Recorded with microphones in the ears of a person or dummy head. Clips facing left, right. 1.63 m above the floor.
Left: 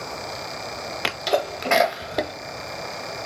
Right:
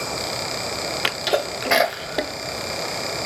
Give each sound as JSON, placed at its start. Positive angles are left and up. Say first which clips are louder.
{"t": 1.0, "sound": "a sneeze", "louder": "left 1 dB", "side_deg": -5, "distance_m": 0.5}